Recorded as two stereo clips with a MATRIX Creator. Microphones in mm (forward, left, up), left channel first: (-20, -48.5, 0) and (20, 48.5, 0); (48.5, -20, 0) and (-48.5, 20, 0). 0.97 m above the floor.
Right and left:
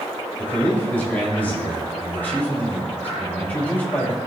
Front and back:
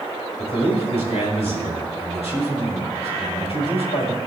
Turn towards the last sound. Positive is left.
turn(degrees=-40)